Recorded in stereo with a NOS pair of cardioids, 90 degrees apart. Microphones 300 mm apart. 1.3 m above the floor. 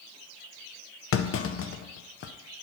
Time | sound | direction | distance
1.1 | a clunk | 45° left | 0.6 m